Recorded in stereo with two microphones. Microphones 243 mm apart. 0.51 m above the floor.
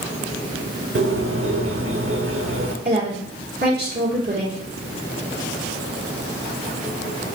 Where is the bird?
55° right (ahead or behind), 0.8 m.